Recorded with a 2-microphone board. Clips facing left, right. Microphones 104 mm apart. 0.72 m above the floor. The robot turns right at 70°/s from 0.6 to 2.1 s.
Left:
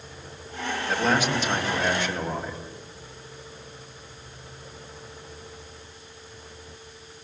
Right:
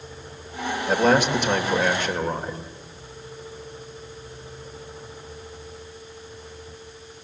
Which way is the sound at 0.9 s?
140° right.